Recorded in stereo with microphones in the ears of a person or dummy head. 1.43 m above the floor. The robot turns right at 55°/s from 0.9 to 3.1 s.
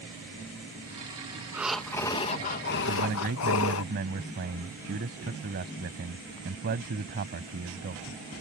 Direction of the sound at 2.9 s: 65° right (ahead or behind).